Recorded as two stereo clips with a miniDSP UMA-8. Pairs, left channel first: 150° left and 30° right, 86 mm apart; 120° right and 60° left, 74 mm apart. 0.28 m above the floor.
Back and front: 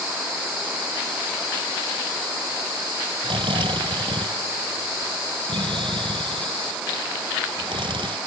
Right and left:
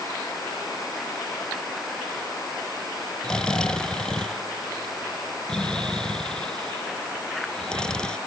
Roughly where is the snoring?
Ahead right.